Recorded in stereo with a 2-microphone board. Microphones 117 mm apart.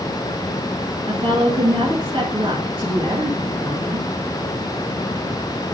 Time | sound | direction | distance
1.1 | a woman speaking | 50° right (ahead or behind) | 2 m